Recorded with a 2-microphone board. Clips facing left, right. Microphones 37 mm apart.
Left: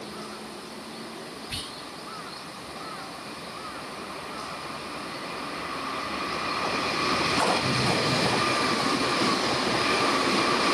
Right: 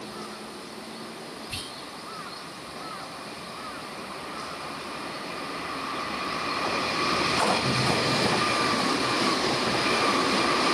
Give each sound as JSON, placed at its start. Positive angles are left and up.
{"t": 1.5, "sound": "whispering", "side_deg": 55, "distance_m": 2.5}